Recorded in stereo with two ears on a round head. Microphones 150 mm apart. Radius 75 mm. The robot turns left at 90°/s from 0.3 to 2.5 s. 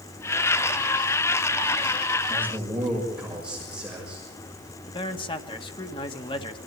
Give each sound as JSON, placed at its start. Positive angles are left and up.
{"t": 2.3, "sound": "a man speaking", "side_deg": -25, "distance_m": 6.0}
{"t": 4.9, "sound": "a man speaking", "side_deg": 30, "distance_m": 1.7}